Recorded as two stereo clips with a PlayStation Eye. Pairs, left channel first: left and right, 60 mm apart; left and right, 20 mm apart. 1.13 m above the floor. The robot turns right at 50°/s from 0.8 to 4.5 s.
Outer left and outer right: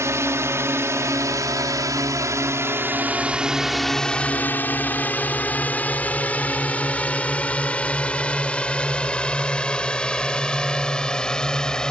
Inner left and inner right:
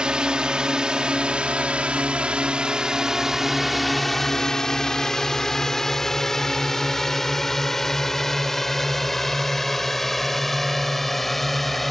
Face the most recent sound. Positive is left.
turn(degrees=10)  # may be behind; listen again after turning